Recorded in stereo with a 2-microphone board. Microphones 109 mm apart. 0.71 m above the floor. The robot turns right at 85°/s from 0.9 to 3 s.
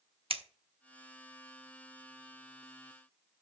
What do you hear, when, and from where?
0.3 s scissors: 60° right (ahead or behind), 0.8 m